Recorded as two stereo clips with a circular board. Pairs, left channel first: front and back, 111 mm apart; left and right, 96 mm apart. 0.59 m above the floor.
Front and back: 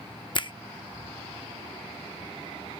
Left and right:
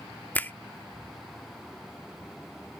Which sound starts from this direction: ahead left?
A finger snap, at 0.3 s.